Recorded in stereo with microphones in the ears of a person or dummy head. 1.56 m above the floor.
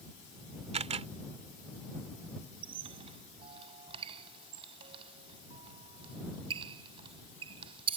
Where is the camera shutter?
30° right (ahead or behind).